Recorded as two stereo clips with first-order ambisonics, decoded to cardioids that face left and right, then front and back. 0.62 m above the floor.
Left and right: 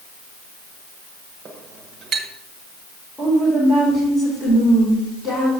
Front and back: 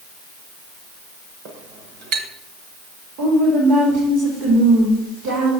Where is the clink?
150° right, 1.2 m.